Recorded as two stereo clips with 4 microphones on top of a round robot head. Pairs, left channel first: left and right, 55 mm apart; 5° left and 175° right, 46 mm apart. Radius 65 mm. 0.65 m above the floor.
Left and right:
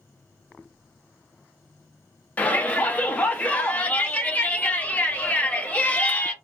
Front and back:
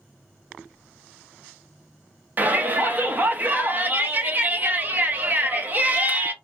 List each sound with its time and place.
2.4 s a shout: 145° left, 0.9 m